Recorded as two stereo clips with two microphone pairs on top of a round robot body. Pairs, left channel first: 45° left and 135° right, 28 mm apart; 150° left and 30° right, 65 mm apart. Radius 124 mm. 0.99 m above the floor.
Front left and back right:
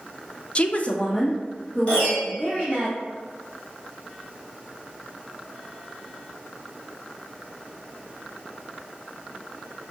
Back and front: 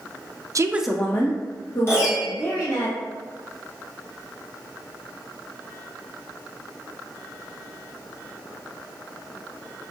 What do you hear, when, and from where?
0.6 s a woman speaking: straight ahead, 0.6 m; by 2.9 s 125° left, 3 m
1.9 s a piano: 100° left, 1.5 m